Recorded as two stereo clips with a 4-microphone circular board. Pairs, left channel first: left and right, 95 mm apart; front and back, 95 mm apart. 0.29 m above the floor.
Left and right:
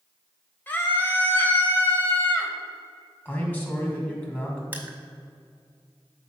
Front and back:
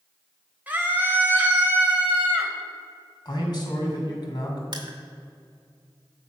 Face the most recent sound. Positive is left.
turn(degrees=-155)